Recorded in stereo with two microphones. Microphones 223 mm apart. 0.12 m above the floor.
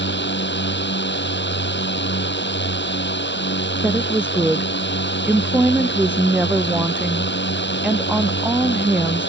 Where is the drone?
55° left (ahead or behind).